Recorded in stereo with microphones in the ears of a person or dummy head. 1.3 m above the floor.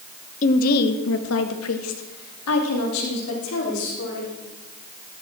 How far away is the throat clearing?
No throat clearing in this recording.